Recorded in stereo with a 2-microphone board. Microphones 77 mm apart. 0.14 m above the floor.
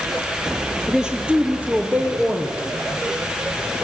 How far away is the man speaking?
About 3 m.